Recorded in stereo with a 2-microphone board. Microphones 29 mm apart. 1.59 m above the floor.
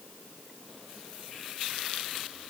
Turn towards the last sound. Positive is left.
No sound to turn to.